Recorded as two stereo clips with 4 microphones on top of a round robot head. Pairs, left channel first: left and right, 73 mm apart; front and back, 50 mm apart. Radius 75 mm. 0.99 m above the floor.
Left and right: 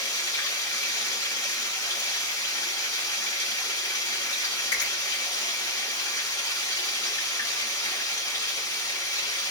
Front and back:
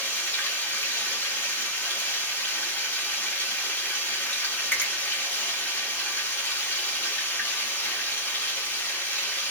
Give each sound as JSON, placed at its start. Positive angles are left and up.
{"t": 0.0, "sound": "running water", "azimuth_deg": 55, "distance_m": 1.9}
{"t": 4.7, "sound": "a finger snap", "azimuth_deg": 50, "distance_m": 1.6}